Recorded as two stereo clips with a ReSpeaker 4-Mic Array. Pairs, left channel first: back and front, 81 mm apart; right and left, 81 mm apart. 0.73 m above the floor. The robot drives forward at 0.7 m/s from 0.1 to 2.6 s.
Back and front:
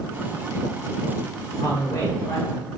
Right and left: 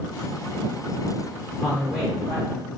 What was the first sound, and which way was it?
A man speaking, straight behind.